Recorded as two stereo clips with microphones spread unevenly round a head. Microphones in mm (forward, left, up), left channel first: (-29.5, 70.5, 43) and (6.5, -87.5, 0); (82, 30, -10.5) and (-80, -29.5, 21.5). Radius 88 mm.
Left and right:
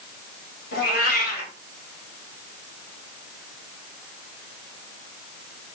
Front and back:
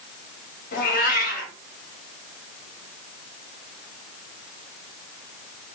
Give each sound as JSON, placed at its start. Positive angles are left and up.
{"t": 0.7, "sound": "a cat meowing", "azimuth_deg": 65, "distance_m": 3.0}